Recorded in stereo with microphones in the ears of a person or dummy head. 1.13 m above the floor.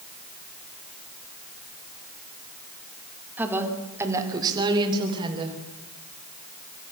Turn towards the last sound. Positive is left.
turn(degrees=-30)  # may be behind; listen again after turning